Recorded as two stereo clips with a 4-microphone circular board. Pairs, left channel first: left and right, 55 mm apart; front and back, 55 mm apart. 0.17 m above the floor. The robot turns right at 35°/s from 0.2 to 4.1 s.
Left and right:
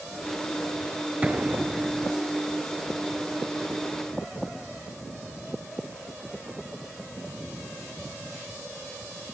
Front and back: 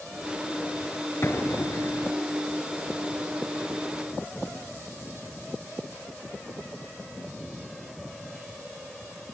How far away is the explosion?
About 2.5 m.